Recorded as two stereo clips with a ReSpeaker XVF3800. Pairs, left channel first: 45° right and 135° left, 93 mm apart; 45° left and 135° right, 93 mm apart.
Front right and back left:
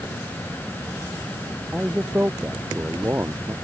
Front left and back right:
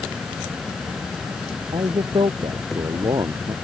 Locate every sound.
1.7 s a man speaking: 150° right; by 3.5 s 165° right